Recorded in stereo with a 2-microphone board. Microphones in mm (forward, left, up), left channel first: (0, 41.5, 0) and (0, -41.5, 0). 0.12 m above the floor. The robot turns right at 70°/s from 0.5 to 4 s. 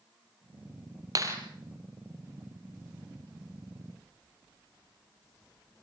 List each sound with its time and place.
1.1 s a clap: 45° right (ahead or behind), 3 m; by 1.4 s 30° right (ahead or behind), 3 m